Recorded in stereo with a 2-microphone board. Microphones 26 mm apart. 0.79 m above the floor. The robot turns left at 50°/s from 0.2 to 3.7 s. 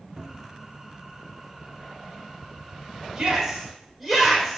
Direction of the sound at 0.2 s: 50° right (ahead or behind).